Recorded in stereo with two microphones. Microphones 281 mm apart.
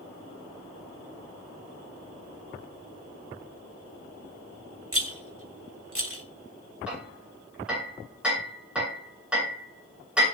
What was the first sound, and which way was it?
A rattle, 50° right (ahead or behind).